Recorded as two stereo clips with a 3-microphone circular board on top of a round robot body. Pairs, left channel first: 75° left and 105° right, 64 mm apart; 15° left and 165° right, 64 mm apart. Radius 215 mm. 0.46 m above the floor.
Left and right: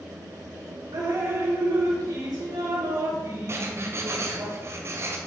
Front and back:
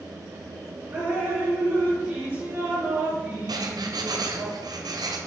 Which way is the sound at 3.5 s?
155° right.